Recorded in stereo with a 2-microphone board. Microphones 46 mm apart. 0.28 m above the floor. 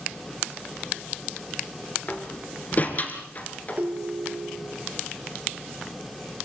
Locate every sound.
2.1 s a door slam: 35° left (ahead or behind), 2.5 m
3.8 s a ringtone: 35° right (ahead or behind), 1.5 m